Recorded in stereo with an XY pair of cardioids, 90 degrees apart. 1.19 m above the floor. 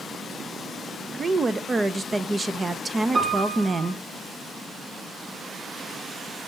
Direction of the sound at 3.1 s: 40° right.